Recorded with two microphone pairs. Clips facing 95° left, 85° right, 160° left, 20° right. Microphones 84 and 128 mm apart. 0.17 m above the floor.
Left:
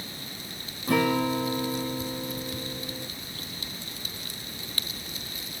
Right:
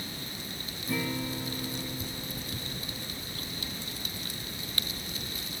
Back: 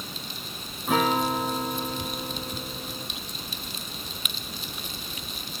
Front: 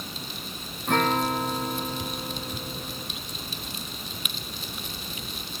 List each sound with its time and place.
0.9 s a guitar: 75° left